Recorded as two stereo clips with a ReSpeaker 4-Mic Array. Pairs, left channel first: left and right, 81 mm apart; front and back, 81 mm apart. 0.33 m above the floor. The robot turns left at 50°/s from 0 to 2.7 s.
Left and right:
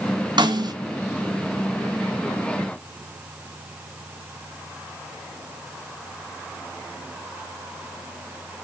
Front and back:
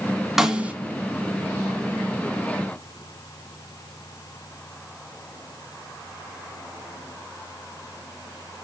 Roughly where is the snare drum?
Right.